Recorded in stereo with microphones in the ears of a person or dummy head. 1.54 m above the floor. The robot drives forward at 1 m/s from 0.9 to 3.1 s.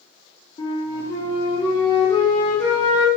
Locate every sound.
0.6 s a flute: 20° left (ahead or behind), 2 m; by 3.1 s 10° left (ahead or behind), 4 m